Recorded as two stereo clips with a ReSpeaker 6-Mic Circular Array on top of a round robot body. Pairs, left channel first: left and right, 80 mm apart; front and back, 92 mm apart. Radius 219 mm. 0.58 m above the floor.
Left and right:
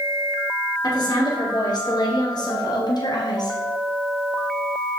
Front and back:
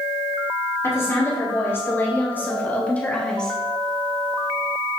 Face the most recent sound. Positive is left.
turn(degrees=85)